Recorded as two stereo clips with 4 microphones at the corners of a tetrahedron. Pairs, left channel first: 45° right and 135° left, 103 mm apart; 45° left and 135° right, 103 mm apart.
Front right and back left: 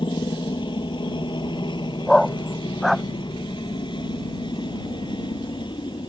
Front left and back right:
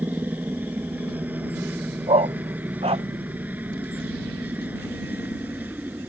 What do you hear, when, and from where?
0.0 s a helicopter: 65° right
2.1 s a dog barking: 135° right